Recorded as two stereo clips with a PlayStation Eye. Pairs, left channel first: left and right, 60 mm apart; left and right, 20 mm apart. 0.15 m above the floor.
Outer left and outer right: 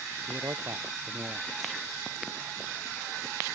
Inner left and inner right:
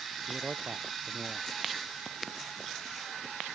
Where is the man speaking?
60° right (ahead or behind).